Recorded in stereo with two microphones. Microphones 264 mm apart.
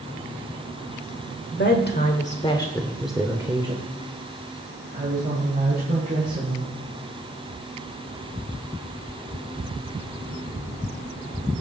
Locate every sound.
1.5 s a woman speaking: 45° left (ahead or behind), 1.5 m; by 6.8 s 40° right (ahead or behind), 4 m